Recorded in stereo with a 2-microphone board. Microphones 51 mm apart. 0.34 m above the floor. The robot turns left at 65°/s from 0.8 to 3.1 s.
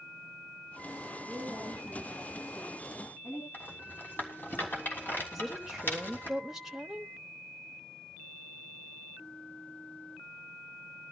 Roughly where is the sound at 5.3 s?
Centre.